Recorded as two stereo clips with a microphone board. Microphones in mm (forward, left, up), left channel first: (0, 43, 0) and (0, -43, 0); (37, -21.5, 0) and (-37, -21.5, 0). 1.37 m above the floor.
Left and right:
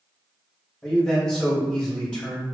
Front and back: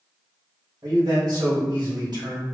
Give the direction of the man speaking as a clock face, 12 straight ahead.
6 o'clock.